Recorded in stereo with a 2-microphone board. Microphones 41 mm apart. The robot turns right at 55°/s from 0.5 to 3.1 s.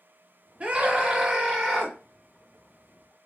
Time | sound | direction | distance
0.6 | a scream | 75° right | 1.8 m